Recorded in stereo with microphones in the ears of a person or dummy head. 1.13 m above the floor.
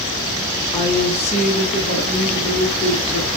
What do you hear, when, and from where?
0.7 s a woman speaking: 25° left (ahead or behind), 1.1 m; by 3.3 s 85° left, 1.4 m